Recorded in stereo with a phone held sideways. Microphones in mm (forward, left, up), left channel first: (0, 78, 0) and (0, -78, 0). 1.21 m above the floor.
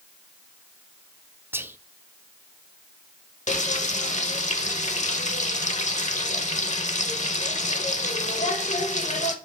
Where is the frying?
50° left (ahead or behind), 0.8 m.